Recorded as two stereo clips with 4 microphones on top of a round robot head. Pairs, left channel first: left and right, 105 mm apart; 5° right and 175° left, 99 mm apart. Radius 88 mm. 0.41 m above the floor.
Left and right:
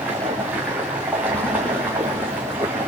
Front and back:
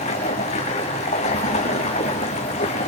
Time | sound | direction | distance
0.0 | running water | 10° right | 5 m